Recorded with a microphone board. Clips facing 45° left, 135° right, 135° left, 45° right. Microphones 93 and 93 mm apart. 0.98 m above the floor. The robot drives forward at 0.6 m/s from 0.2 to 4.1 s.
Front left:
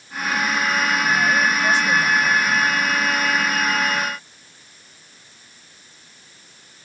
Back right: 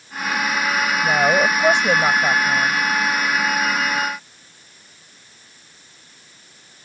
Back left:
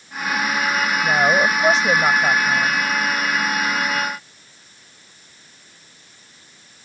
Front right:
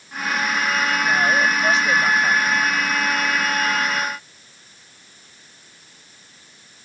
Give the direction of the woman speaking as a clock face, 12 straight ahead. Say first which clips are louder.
Back right 5 dB, back left 3 dB; 5 o'clock.